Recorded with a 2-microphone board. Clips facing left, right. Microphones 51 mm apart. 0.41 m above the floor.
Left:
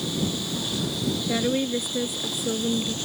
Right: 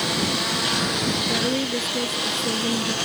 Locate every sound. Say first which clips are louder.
0.0 s a lawn mower: right 4 dB; 70° right (ahead or behind); by 3.0 s 65° right (ahead or behind)
1.3 s a woman speaking: right 1 dB; 5° left (ahead or behind)